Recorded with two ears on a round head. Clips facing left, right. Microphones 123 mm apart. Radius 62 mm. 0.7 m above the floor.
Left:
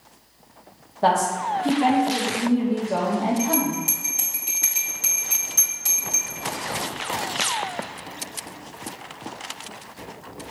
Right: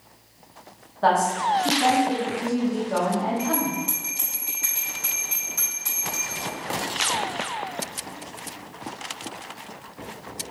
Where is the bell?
40° left (ahead or behind), 1.7 m.